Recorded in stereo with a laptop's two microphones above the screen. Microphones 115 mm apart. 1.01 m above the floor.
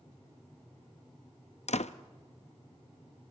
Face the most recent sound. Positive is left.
turn(degrees=75)  # may be behind; listen again after turning